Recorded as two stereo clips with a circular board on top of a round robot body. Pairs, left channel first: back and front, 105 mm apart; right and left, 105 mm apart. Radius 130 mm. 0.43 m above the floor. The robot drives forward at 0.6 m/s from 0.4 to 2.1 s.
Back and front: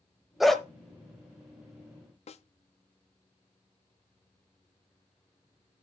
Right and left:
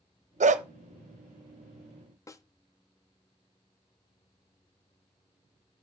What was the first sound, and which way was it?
A dog barking, 90° left.